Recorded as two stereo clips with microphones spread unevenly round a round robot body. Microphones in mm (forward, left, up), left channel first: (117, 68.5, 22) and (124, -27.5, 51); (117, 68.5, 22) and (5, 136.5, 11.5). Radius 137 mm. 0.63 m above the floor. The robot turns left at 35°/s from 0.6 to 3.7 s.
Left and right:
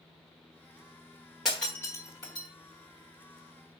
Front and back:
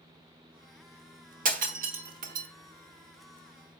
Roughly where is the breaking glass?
Behind.